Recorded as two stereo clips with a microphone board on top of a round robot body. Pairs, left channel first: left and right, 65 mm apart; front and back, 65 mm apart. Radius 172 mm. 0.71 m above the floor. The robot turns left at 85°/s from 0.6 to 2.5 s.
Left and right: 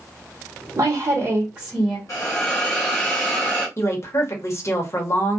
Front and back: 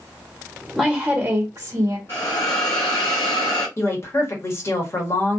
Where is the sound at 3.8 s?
45° left, 1.2 m.